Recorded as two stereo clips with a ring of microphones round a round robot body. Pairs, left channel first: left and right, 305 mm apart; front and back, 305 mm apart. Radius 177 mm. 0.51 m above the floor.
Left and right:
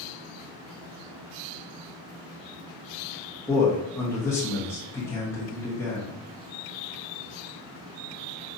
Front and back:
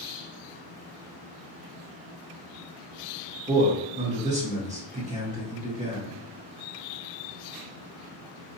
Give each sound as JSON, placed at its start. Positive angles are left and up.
{"t": 3.5, "sound": "a man speaking", "azimuth_deg": 160, "distance_m": 1.0}